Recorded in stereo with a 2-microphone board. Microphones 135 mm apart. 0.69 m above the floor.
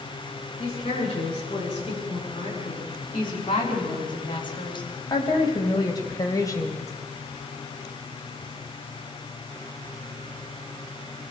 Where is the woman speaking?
40° left (ahead or behind), 9 m; by 6.9 s 20° left (ahead or behind), 2.5 m.